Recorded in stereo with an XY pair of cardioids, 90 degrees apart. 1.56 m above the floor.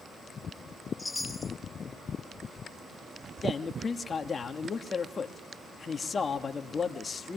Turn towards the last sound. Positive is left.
turn(degrees=40)